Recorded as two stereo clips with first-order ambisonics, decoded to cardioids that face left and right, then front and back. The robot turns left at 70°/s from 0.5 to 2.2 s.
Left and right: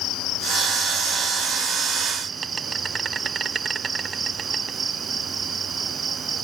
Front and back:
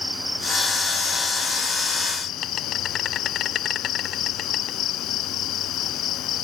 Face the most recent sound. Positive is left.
turn(degrees=-30)